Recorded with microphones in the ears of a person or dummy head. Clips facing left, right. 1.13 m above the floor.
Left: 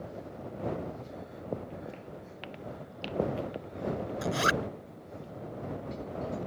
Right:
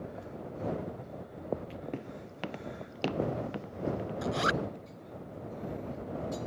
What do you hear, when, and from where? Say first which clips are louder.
1.9 s footsteps: right 4 dB; 65° right (ahead or behind); by 4.1 s 70° right (ahead or behind)
4.2 s a zipper: left 1 dB; 30° left (ahead or behind)